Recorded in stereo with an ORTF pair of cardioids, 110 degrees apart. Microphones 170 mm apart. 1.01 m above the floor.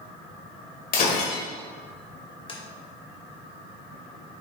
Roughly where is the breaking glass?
Ahead left.